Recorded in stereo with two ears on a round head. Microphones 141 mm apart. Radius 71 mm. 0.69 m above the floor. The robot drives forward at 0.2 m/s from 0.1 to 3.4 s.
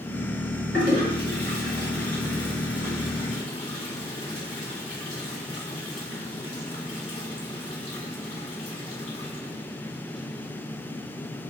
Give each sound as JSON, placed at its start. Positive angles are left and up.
{"t": 0.7, "sound": "a toilet flushing", "side_deg": 60, "distance_m": 1.9}